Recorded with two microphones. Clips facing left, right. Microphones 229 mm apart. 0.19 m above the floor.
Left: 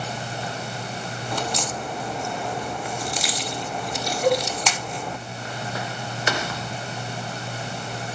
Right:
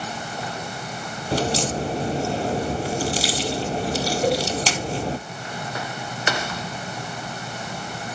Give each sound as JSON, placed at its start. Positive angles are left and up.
{"t": 1.3, "sound": "a crack", "side_deg": -35, "distance_m": 0.7}
{"t": 4.2, "sound": "a cowbell", "side_deg": -30, "distance_m": 2.0}